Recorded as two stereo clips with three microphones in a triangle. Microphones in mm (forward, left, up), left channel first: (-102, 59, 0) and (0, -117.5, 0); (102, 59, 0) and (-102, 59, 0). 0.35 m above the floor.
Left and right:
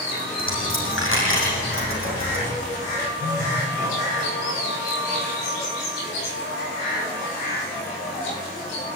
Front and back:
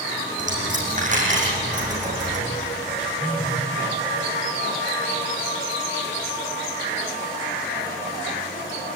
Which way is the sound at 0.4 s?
125° left.